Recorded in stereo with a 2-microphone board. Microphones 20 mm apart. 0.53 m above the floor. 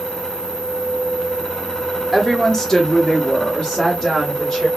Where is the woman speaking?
10° left (ahead or behind), 1.2 m; by 4.7 s 25° left (ahead or behind), 2 m.